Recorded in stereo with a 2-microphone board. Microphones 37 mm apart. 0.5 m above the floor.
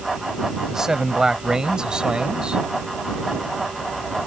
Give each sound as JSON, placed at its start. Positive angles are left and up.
{"t": 0.7, "sound": "a man speaking", "side_deg": -15}